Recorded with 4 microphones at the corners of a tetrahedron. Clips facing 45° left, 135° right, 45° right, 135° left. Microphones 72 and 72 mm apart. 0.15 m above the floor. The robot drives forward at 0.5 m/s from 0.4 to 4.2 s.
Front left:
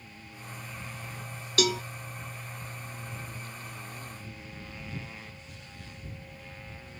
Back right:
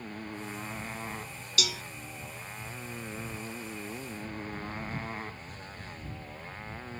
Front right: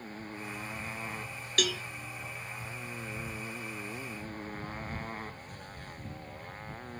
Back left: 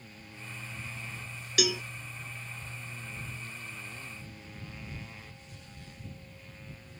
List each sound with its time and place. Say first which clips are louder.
0.0 s a motorcycle: back right 8 dB, front right 7 dB; 95° right; by 7.0 s 85° right
1.6 s a cowbell: front left 8 dB, back left 2 dB; 55° left; by 1.8 s 75° left